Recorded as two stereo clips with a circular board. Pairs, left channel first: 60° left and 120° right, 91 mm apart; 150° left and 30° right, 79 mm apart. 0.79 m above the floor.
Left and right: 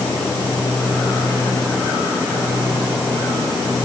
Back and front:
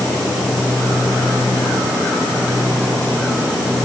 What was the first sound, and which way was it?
Only background noise.